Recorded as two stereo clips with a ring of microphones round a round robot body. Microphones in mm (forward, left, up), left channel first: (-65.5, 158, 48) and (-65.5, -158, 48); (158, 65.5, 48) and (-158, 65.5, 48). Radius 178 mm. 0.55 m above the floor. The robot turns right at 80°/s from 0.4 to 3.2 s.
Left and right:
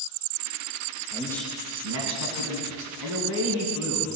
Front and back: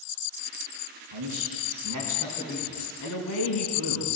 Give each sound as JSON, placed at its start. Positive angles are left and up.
{"t": 1.1, "sound": "a man speaking", "azimuth_deg": 155, "distance_m": 5.5}